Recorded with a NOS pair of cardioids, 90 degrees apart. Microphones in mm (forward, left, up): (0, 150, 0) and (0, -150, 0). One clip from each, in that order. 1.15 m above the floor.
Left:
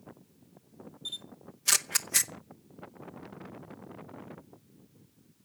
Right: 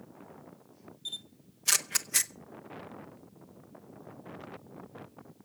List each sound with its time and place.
1.1 s a camera shutter: 5° left, 0.8 m